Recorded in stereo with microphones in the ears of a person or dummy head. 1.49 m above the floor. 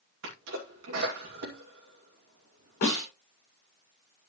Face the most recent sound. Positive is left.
turn(degrees=55)  # may be behind; listen again after turning